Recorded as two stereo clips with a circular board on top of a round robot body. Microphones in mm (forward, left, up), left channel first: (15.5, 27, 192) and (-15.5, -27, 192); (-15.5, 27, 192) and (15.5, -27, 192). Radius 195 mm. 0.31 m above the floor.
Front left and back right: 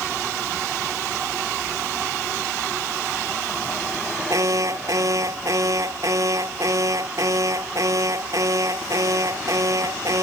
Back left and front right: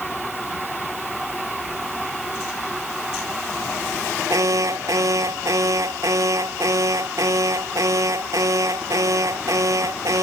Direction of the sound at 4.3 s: 90° right.